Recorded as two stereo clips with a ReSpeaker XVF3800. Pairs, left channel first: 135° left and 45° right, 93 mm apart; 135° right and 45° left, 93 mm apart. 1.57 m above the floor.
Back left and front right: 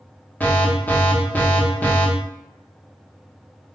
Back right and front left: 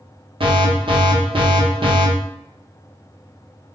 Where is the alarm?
60° left, 0.9 m.